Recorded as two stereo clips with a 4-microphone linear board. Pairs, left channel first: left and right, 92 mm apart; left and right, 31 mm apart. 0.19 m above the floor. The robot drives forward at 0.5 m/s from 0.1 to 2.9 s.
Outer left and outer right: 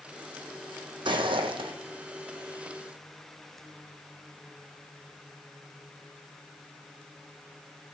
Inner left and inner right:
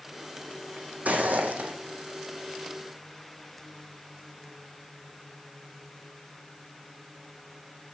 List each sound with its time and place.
1.1 s footsteps: 65° right (ahead or behind), 0.5 m; by 1.7 s 70° right (ahead or behind), 0.5 m